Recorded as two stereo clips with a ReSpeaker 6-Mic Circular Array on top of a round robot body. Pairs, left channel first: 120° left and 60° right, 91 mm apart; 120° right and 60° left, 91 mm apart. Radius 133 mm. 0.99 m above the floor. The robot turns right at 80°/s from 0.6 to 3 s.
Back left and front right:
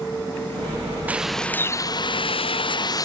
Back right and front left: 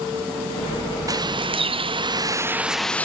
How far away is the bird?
About 0.8 m.